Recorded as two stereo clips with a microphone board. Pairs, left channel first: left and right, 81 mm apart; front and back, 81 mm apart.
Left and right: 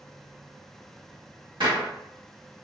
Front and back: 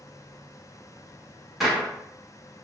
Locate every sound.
1.6 s a gunshot: 90° right, 1.2 m